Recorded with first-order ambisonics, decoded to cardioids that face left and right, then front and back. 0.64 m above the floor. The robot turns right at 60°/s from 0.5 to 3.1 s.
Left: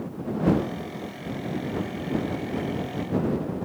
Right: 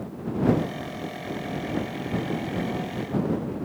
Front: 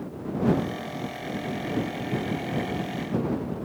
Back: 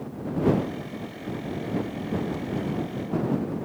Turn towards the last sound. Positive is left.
No sound to turn to.